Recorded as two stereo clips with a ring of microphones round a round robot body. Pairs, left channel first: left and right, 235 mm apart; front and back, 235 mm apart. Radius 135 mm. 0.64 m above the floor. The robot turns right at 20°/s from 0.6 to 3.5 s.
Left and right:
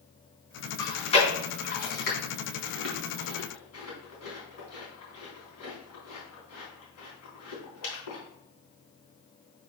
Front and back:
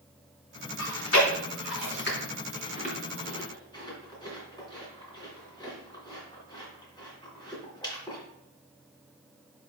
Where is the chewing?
20° left, 3 m; by 8.2 s 70° left, 3 m.